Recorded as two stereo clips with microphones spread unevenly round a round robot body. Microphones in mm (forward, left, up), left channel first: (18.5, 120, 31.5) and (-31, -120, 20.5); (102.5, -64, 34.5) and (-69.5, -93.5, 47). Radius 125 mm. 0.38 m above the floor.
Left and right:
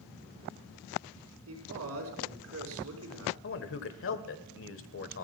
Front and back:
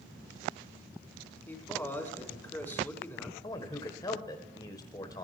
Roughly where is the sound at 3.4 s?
Left.